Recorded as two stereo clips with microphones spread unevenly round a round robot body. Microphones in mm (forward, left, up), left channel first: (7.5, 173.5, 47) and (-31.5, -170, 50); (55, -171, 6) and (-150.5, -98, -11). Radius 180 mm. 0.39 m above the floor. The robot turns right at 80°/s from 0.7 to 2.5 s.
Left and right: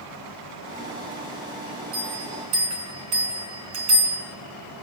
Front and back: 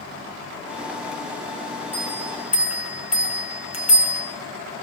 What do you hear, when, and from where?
1.9 s a bell: 160° right, 4.5 m; by 4.2 s 115° right, 4.5 m